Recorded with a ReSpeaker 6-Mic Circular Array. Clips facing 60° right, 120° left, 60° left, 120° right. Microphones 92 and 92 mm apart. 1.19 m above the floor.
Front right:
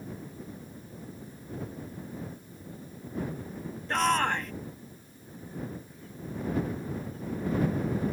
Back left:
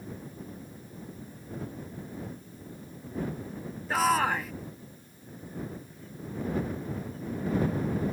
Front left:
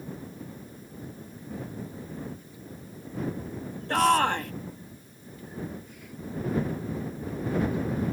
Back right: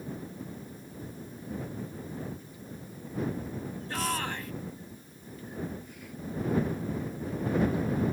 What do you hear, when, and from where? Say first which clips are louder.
3.9 s a shout: back left 1 dB, front left 12 dB; 35° left